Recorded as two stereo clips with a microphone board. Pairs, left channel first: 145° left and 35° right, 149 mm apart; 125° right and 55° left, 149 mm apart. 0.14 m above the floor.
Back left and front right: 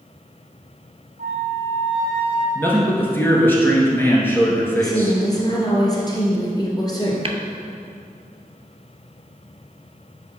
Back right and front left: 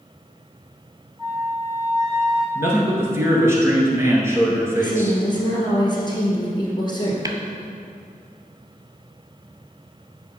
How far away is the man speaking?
About 1.2 m.